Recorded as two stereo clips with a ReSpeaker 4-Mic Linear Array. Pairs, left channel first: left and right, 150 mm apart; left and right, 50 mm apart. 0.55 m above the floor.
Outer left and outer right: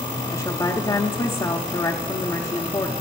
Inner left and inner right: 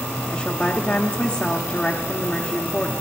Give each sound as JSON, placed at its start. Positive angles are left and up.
{"t": 0.3, "sound": "a woman speaking", "side_deg": 30, "distance_m": 1.0}